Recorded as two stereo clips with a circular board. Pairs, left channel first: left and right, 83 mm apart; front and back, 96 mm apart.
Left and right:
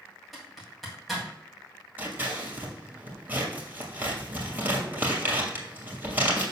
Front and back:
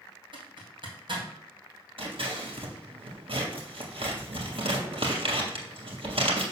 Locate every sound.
0.3 s a zipper: straight behind, 2.5 m
2.0 s scissors: 160° right, 2.5 m